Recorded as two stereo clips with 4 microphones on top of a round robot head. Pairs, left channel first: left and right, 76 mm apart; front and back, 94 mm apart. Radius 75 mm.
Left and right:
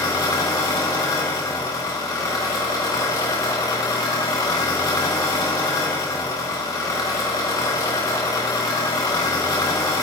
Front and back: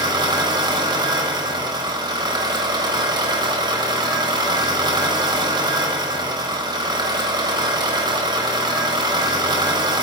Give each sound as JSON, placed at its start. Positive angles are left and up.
{"t": 0.0, "sound": "an engine running", "azimuth_deg": 140, "distance_m": 1.3}